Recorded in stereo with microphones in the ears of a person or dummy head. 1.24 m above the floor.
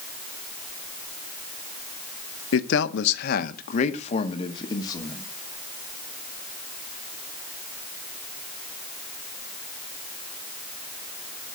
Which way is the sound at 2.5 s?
80° left.